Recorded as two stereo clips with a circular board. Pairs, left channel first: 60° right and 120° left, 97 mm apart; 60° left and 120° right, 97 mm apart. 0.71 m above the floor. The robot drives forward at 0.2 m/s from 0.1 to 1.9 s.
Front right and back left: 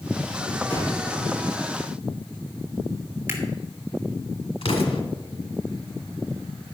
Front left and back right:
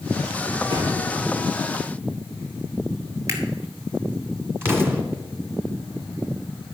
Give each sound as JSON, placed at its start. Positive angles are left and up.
{"t": 0.7, "sound": "a thud", "azimuth_deg": -135, "distance_m": 5.0}
{"t": 3.3, "sound": "a camera shutter", "azimuth_deg": -175, "distance_m": 2.0}
{"t": 4.6, "sound": "an explosion", "azimuth_deg": -55, "distance_m": 1.6}